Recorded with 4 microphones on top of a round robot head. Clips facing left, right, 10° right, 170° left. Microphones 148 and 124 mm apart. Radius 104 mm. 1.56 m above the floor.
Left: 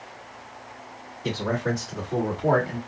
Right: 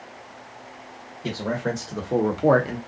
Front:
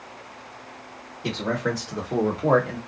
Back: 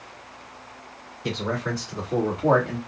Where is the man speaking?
30° right, 1.3 m; by 2.8 s 105° right, 0.9 m.